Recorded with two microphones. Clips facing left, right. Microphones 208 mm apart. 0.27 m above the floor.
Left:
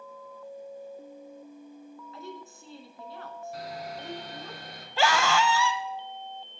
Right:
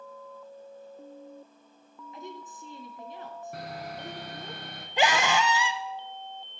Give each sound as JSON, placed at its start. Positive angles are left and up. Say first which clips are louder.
{"t": 2.1, "sound": "a woman speaking", "louder": "right 2 dB", "side_deg": -20, "distance_m": 2.5}
{"t": 3.5, "sound": "sawing", "louder": "left 1 dB", "side_deg": -60, "distance_m": 2.5}
{"t": 5.0, "sound": "a scream", "louder": "even", "side_deg": -20, "distance_m": 0.9}